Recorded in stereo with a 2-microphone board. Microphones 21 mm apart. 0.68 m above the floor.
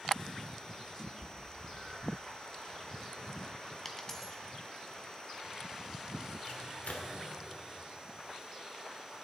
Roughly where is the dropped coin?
Centre.